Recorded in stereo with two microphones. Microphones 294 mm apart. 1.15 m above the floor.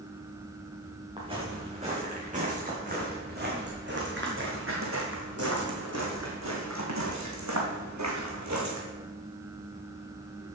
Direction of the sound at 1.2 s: 20° right (ahead or behind).